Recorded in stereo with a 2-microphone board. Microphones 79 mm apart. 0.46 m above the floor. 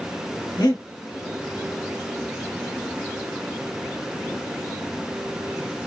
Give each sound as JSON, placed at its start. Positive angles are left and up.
{"t": 0.6, "sound": "breathing", "side_deg": 65, "distance_m": 0.9}